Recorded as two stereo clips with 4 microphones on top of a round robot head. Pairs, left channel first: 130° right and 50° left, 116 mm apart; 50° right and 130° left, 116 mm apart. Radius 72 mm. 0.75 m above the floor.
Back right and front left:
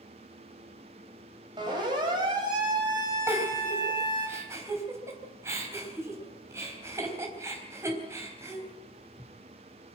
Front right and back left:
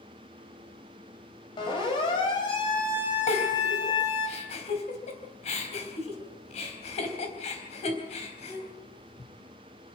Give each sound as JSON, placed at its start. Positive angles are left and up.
{"t": 1.6, "sound": "a siren", "azimuth_deg": 0, "distance_m": 5.5}
{"t": 3.3, "sound": "a giggle", "azimuth_deg": -15, "distance_m": 4.0}